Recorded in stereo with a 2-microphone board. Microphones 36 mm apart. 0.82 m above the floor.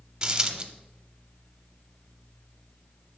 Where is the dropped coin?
25° right (ahead or behind), 0.7 m.